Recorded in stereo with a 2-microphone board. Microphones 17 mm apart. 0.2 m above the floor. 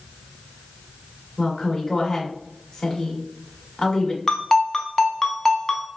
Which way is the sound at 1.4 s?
25° left (ahead or behind).